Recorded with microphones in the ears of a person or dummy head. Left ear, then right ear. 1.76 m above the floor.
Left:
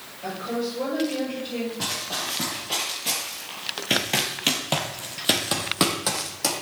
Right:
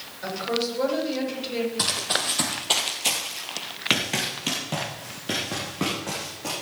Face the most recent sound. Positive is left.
turn(degrees=55)  # may be behind; listen again after turning